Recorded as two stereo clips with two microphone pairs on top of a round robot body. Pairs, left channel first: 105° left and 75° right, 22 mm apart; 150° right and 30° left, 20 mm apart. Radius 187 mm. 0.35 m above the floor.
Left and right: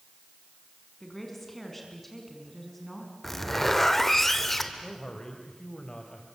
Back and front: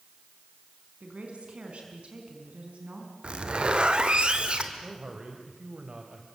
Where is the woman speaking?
25° left, 4.5 m.